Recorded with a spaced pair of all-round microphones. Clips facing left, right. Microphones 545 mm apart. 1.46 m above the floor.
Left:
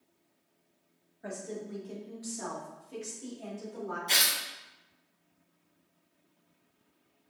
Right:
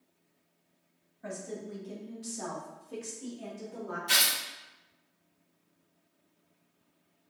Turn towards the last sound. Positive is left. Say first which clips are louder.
# even
turn(degrees=-35)  # may be behind; listen again after turning